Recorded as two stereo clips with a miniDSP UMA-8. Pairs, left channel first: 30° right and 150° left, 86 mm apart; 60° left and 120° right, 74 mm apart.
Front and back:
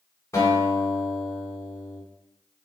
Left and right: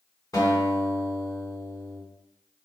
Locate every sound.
0.3 s a guitar: 25° left, 1.7 m